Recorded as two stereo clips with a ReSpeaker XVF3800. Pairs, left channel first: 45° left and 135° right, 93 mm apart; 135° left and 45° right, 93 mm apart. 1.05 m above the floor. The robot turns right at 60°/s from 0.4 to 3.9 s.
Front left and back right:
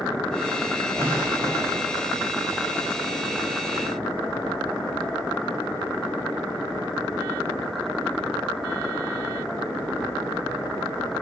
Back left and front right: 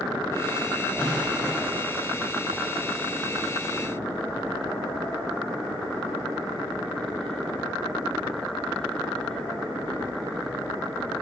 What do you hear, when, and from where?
1.0 s an explosion: 170° left, 1.5 m; by 1.9 s 135° right, 1.5 m